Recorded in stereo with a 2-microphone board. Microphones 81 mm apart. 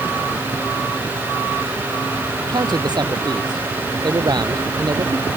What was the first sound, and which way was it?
A man speaking, 55° right (ahead or behind).